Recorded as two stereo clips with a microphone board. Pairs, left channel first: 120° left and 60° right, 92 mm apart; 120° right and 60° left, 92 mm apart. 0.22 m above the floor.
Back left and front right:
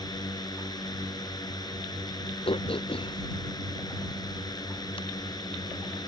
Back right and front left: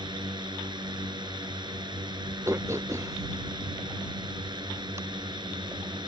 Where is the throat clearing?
120° left.